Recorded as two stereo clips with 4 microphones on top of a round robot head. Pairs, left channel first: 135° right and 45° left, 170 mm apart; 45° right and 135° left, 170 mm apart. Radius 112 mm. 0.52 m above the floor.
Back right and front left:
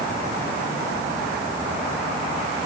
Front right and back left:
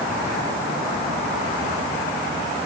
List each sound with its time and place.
Only background noise.